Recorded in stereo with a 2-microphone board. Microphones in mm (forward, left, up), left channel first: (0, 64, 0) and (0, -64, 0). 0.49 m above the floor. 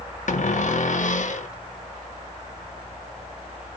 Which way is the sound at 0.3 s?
70° left (ahead or behind).